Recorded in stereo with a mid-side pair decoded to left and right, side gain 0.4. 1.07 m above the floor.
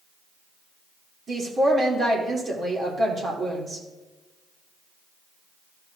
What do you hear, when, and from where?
1.3 s a woman speaking: 50° right, 3 m